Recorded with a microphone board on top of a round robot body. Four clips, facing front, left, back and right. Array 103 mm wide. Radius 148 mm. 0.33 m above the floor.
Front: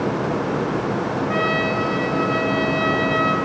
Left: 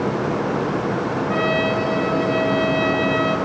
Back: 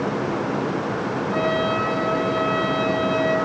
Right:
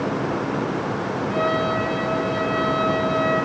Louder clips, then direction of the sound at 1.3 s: Left 1 dB, back 2 dB; 30° left.